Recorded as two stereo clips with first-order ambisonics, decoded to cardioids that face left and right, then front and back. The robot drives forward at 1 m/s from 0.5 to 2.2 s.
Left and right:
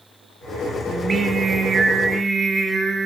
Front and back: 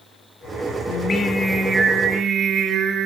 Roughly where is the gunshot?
No gunshot in this recording.